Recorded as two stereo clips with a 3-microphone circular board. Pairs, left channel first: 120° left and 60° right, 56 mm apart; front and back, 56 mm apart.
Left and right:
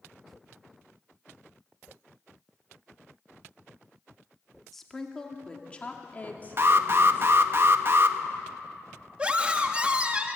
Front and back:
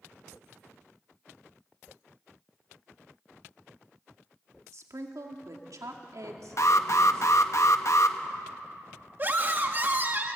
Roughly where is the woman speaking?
Behind right.